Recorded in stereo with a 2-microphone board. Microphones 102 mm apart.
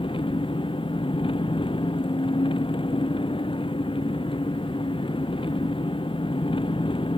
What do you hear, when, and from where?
0.0 s an engine running: 55° left (ahead or behind)